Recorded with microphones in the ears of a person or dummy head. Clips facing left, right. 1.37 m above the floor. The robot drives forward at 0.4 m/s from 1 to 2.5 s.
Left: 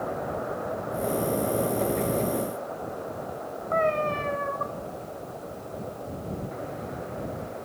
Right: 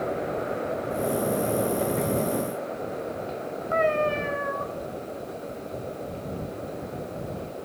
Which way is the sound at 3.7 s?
10° right (ahead or behind).